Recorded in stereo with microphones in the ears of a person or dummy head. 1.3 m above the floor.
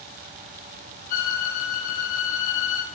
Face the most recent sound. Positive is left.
turn(degrees=45)  # may be behind; listen again after turning